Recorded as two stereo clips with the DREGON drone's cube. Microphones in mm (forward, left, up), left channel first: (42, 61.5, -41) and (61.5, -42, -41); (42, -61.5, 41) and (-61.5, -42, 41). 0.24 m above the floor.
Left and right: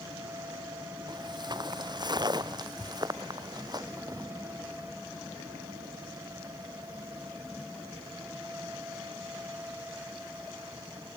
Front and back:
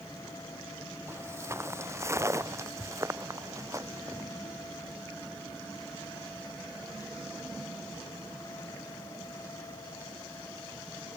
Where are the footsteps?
125° right; by 4.3 s 130° right.